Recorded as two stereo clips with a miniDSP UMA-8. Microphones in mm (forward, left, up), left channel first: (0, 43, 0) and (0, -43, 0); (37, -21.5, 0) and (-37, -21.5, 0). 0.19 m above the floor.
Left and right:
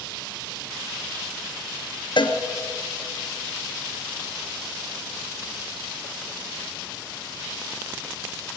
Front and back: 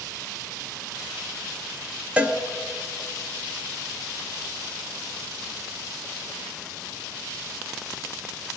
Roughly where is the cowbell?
Left.